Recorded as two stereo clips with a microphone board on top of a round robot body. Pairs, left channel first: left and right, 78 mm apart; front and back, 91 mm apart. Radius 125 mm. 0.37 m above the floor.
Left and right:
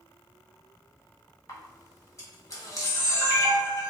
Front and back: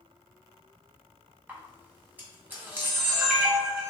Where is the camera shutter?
120° left, 1.8 m.